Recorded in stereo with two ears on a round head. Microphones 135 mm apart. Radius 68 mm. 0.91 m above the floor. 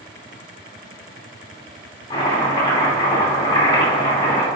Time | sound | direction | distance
2.1 | chopping | 30° left (ahead or behind) | 3 m